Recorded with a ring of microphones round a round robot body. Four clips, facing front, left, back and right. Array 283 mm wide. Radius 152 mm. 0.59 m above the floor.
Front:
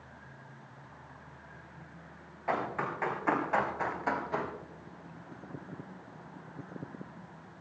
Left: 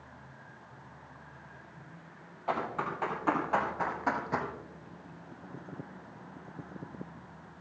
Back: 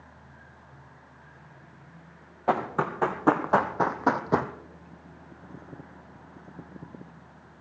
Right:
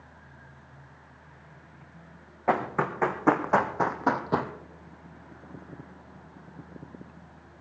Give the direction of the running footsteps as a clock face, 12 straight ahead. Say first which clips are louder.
Right 7 dB, back 6 dB; 5 o'clock.